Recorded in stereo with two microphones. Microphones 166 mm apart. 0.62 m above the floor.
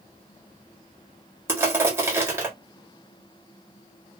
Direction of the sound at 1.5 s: 15° right (ahead or behind).